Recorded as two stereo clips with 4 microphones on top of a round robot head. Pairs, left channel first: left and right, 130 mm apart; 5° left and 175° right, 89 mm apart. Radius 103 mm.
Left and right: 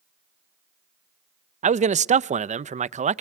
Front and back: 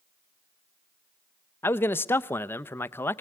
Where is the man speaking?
65° right, 0.6 m.